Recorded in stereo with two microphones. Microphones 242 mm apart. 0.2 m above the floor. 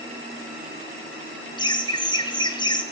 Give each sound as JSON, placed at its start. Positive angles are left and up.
{"t": 1.6, "sound": "laughter", "side_deg": 20, "distance_m": 1.4}